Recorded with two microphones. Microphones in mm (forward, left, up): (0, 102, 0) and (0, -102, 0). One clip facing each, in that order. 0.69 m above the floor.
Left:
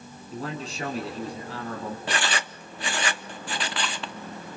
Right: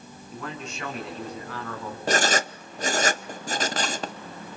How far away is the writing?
About 0.5 m.